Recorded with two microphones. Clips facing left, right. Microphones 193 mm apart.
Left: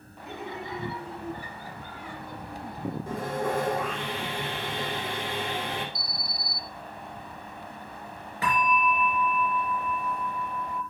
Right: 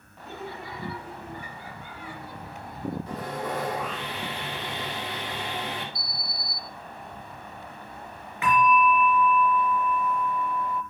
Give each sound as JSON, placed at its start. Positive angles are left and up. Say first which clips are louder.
{"t": 0.2, "sound": "laughter", "louder": "left 1 dB", "side_deg": 15, "distance_m": 3.0}
{"t": 3.1, "sound": "sawing", "louder": "left 3 dB", "side_deg": 50, "distance_m": 5.5}
{"t": 6.0, "sound": "an alarm", "louder": "even", "side_deg": 40, "distance_m": 4.0}
{"t": 8.4, "sound": "a bell", "louder": "right 5 dB", "side_deg": 35, "distance_m": 3.5}